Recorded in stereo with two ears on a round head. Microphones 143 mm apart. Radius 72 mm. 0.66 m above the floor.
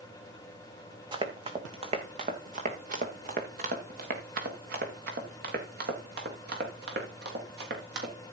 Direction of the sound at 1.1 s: 30° right (ahead or behind).